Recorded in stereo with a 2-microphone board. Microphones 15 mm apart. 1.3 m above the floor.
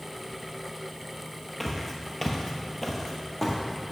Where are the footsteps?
5° left (ahead or behind), 1.4 m; by 3.6 s 20° left (ahead or behind), 1.6 m.